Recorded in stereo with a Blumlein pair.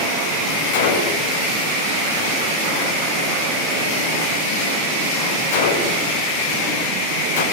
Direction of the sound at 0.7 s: 60° left.